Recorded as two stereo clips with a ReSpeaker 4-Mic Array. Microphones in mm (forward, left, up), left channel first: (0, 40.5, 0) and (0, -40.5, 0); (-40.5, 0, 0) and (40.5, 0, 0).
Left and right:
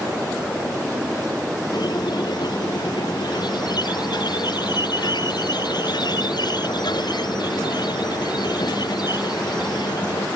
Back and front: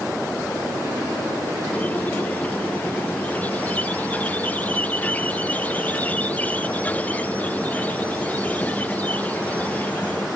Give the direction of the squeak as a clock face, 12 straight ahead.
8 o'clock.